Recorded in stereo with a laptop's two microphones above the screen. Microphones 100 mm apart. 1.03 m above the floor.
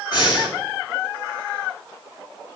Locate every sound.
0.1 s breathing: 50° left (ahead or behind), 2 m